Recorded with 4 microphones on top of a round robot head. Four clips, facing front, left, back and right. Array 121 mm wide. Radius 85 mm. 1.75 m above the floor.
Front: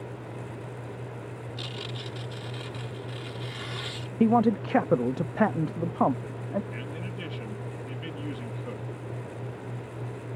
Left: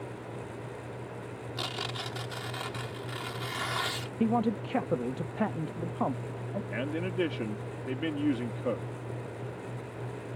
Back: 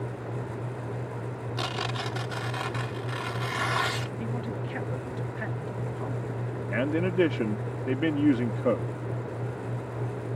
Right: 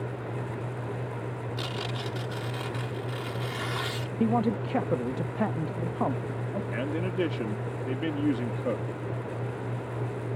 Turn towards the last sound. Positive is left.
turn(degrees=-175)